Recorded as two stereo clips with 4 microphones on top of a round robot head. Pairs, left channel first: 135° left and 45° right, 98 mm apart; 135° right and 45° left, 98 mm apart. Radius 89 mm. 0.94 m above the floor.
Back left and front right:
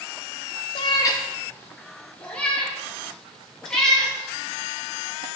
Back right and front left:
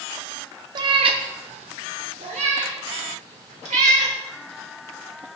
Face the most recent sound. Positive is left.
turn(degrees=50)